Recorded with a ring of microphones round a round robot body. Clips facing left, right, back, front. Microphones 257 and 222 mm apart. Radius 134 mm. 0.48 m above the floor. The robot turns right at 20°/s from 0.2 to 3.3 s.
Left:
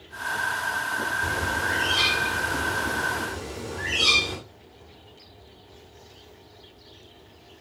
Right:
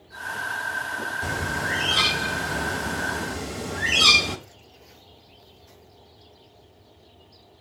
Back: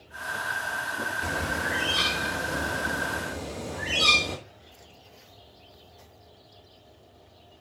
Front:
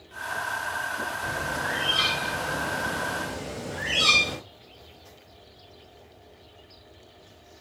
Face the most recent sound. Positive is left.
turn(degrees=-80)